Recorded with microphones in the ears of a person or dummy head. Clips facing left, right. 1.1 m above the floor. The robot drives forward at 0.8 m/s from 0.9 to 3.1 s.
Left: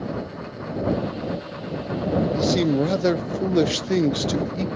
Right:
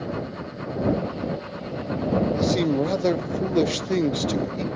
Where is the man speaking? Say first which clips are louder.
Left 1 dB; 5° left (ahead or behind), 0.6 m.